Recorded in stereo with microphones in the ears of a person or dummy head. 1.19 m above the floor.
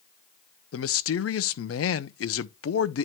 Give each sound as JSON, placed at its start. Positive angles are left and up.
{"t": 0.7, "sound": "a man speaking", "side_deg": 65, "distance_m": 0.7}